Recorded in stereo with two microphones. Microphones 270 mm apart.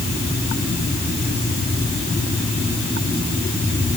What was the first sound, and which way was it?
Only background noise.